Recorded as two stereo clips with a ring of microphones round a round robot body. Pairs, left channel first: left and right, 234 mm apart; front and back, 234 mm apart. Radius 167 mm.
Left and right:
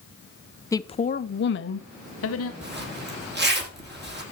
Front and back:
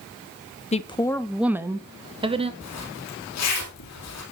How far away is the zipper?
About 4.5 m.